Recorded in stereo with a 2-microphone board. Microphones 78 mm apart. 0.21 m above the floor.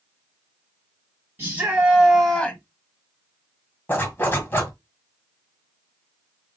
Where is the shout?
30° right (ahead or behind), 1.1 m; by 2.6 s 20° left (ahead or behind), 0.9 m.